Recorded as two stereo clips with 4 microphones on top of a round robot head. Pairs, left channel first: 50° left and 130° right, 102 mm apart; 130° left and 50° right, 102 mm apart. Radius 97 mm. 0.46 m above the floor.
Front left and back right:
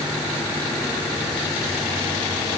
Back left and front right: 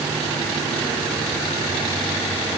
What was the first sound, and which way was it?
Only background noise.